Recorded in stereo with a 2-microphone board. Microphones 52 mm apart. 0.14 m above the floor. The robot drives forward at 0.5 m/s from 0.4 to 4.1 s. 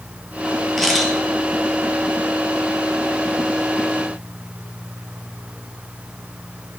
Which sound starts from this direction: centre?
A camera shutter, at 0.8 s.